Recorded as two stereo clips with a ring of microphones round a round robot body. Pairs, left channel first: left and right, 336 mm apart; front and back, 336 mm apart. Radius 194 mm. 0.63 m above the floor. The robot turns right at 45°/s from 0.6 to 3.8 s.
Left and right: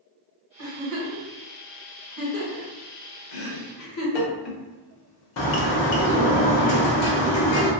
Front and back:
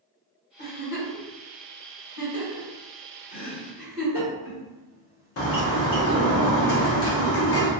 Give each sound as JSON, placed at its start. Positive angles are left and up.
{"t": 0.6, "sound": "a giggle", "azimuth_deg": -50, "distance_m": 1.7}
{"t": 3.3, "sound": "chopping", "azimuth_deg": 75, "distance_m": 0.7}
{"t": 5.4, "sound": "a bird", "azimuth_deg": 50, "distance_m": 0.6}